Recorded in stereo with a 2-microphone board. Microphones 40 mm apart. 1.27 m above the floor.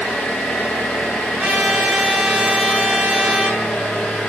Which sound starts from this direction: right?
A trumpet, at 1.4 s.